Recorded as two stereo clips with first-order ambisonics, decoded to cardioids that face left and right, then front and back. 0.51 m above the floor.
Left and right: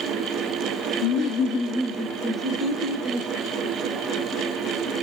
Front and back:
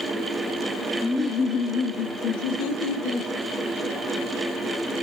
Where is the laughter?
90° left, 0.9 m; by 3.3 s 30° right, 2.5 m.